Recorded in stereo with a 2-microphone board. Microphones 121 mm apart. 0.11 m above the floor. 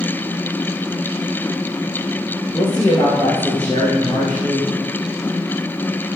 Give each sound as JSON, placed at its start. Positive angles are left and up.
{"t": 2.5, "sound": "a woman speaking", "side_deg": 15, "distance_m": 3.5}